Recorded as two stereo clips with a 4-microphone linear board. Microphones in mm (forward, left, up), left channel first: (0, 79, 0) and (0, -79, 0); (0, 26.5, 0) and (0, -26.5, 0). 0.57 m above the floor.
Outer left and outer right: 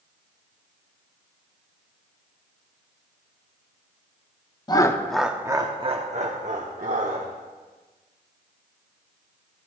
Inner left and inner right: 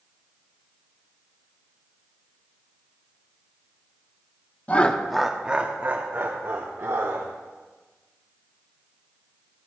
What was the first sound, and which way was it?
Laughter, 25° left (ahead or behind).